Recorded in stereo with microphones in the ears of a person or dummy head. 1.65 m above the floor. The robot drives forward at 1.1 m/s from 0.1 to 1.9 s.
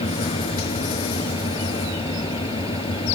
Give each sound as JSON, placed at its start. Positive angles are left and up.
{"t": 0.0, "sound": "an engine running", "side_deg": 30}